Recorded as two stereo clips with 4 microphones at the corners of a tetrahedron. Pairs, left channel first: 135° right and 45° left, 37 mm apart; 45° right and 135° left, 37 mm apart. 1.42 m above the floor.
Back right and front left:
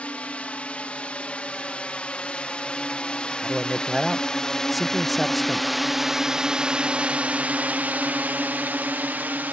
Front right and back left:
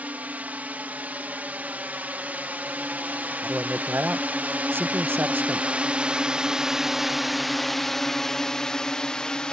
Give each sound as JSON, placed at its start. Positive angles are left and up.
{"t": 0.0, "sound": "a drone", "azimuth_deg": 175}
{"t": 3.4, "sound": "a man speaking", "azimuth_deg": 135}